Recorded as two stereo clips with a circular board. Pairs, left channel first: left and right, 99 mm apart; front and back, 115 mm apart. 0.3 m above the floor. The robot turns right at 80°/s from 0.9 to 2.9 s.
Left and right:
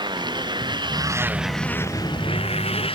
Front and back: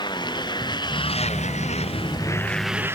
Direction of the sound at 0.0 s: 50° right.